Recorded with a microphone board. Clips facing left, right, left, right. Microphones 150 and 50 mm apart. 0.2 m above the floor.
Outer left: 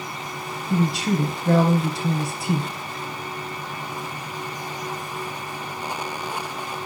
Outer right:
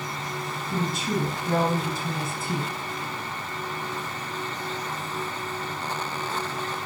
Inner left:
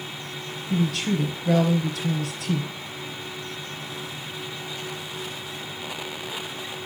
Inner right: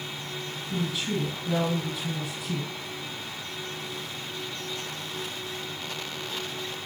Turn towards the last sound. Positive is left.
turn(degrees=70)  # may be behind; listen again after turning